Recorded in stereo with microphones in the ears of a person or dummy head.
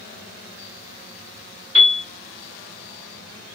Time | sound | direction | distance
1.8 | a piano | 30° left (ahead or behind) | 1.2 m